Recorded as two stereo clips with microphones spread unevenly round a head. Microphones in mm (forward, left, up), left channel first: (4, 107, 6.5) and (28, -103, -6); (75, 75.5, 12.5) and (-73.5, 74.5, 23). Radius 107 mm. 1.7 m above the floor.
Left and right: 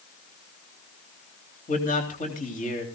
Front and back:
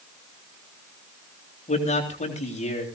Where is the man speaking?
40° left, 3.5 m.